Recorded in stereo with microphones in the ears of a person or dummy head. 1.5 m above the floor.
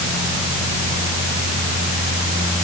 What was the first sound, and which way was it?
Only background noise.